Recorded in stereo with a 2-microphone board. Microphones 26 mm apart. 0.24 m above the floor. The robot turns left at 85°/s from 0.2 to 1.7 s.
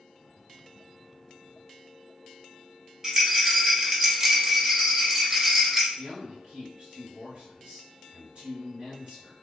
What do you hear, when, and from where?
3.0 s a rattle: 15° right (ahead or behind), 0.7 m
6.0 s a man speaking: 40° right (ahead or behind), 1.3 m